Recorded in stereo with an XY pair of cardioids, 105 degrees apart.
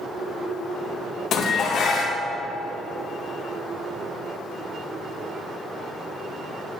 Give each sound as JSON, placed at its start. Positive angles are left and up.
{"t": 1.3, "sound": "dishes clattering", "azimuth_deg": 65, "distance_m": 0.9}